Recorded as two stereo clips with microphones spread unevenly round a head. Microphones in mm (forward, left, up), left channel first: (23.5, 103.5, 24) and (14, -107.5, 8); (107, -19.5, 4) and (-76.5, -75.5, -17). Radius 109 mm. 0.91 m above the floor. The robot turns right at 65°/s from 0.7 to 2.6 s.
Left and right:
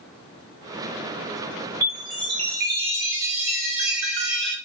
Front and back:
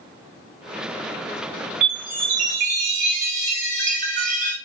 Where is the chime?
170° left, 2.0 m; by 4.5 s 140° right, 2.0 m.